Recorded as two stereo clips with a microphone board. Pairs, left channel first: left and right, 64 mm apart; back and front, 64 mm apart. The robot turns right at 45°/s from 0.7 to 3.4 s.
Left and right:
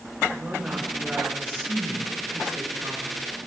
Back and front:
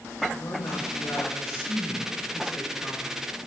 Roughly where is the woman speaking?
Behind.